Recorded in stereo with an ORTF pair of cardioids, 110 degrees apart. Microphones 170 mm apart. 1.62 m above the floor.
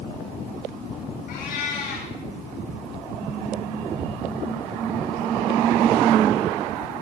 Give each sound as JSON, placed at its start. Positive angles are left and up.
{"t": 1.3, "sound": "a cat meowing", "azimuth_deg": 65, "distance_m": 8.5}